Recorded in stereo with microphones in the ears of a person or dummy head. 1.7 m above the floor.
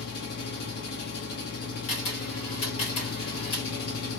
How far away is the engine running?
About 0.8 m.